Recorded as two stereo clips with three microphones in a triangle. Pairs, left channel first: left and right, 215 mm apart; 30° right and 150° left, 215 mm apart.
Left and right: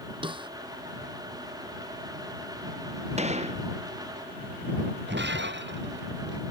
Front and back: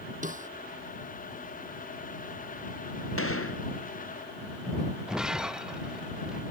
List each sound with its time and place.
0.2 s a snare drum: 155° right
3.2 s a gunshot: 30° right
5.1 s breaking glass: 125° right